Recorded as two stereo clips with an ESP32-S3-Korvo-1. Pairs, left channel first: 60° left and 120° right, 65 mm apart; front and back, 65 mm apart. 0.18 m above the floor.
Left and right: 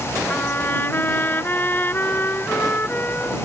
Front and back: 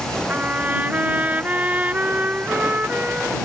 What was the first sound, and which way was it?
A trumpet, 120° left.